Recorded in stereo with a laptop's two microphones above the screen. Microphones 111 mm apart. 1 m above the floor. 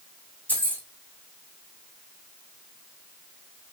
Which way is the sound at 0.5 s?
15° left (ahead or behind).